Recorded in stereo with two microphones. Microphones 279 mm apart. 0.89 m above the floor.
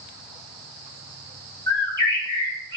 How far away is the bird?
About 3.5 m.